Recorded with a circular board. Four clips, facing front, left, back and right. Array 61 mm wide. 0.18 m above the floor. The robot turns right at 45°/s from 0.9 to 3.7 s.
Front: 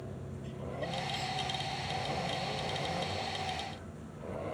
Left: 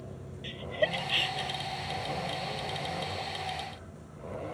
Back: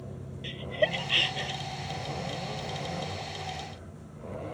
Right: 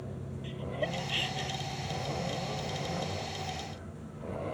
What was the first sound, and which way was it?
Laughter, 155° left.